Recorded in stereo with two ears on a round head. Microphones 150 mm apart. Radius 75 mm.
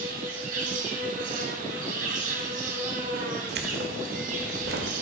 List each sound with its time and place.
0.0 s an insect: 55° right (ahead or behind), 2.5 m
3.5 s keys jangling: 70° right (ahead or behind), 1.6 m